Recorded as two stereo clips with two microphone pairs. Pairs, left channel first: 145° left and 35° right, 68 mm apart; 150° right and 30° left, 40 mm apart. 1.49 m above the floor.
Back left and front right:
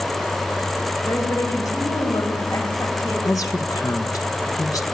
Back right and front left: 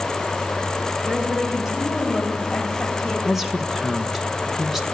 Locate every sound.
1.1 s a woman speaking: 100° left, 6 m; by 3.1 s 130° left, 6.5 m
3.2 s a woman speaking: 110° left, 1.7 m